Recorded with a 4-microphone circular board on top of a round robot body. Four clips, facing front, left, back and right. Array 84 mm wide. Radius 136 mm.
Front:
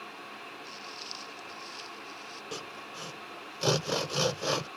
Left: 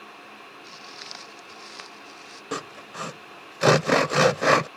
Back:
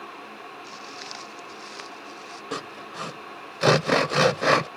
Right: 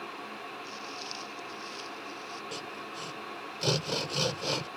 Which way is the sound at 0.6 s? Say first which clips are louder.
Right 2 dB, back 5 dB; 145° left.